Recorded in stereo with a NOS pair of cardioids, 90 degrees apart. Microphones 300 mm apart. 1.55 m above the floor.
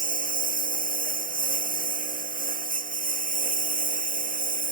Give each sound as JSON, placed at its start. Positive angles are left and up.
{"t": 0.0, "sound": "a lawn mower", "azimuth_deg": -30}